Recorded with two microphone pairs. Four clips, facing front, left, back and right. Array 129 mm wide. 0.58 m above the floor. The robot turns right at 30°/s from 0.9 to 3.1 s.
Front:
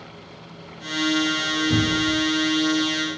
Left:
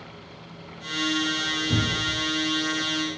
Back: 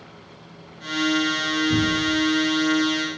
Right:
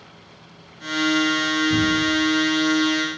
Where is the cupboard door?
25° left, 3.5 m; by 2.2 s 40° left, 3.5 m.